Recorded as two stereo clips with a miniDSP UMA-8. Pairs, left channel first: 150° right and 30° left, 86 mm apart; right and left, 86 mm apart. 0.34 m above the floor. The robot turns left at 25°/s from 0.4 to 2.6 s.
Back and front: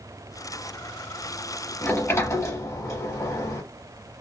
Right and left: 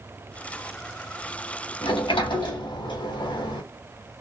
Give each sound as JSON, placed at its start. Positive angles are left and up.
{"t": 1.8, "sound": "a sliding door", "azimuth_deg": -80, "distance_m": 0.8}